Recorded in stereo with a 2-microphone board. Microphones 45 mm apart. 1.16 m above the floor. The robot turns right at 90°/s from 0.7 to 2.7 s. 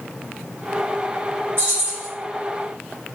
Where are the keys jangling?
60° right, 1.5 m; by 2.1 s 15° right, 1.5 m.